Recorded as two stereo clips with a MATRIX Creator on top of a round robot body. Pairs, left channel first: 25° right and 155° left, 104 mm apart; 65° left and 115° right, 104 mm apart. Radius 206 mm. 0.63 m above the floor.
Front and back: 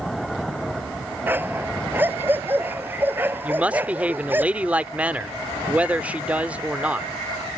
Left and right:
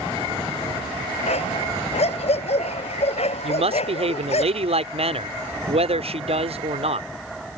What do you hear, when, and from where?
1.3 s a dog barking: 85° left
3.4 s a woman speaking: 125° right